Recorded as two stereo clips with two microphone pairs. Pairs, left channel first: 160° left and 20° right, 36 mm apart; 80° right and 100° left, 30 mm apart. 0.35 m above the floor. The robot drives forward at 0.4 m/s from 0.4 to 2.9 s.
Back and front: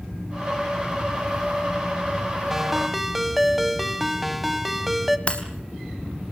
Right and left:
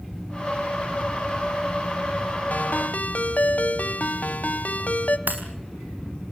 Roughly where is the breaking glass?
Left.